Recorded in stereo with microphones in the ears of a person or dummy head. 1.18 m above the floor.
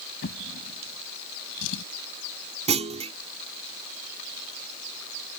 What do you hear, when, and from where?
0.2 s a drawer: 70° left (ahead or behind)
2.7 s a clunk: 35° right (ahead or behind)